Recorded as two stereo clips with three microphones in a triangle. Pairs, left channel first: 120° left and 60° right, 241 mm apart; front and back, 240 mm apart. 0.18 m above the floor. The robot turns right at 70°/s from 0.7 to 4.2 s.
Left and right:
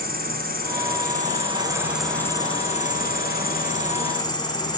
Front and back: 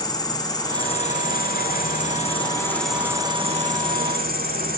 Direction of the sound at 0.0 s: 65° right.